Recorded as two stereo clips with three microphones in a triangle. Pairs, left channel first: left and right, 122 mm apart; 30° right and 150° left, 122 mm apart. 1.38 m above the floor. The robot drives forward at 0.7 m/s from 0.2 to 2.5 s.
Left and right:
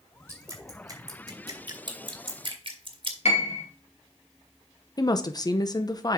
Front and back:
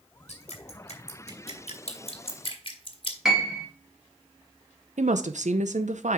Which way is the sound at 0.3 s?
25° right.